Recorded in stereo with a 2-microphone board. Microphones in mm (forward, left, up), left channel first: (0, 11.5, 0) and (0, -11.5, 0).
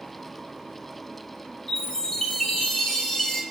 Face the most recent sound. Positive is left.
turn(degrees=15)  # may be behind; listen again after turning